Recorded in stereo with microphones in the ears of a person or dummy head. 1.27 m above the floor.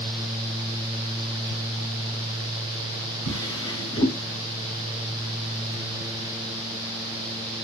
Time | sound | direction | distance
3.2 | a drawer | 20° left (ahead or behind) | 1.4 m